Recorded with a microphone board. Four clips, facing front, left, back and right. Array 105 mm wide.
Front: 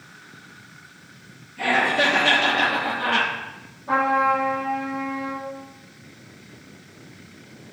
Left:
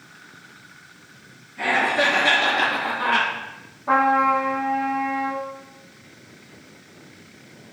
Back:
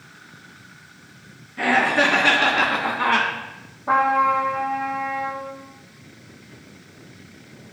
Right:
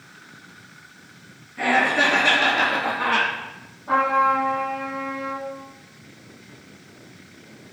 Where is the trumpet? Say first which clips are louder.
Left 1 dB, back 2 dB; 150° left, 5 m.